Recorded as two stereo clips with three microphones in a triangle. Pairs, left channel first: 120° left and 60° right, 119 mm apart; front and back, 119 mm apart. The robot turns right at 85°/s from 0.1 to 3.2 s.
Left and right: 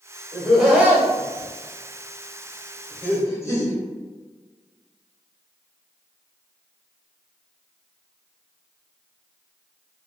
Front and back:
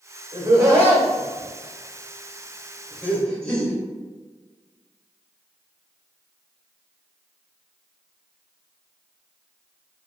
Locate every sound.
0.3 s laughter: 170° right, 1.1 m; by 3.7 s 75° left, 1.1 m